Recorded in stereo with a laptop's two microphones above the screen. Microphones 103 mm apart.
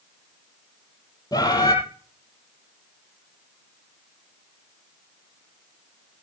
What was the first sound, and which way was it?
A bird, 40° left (ahead or behind).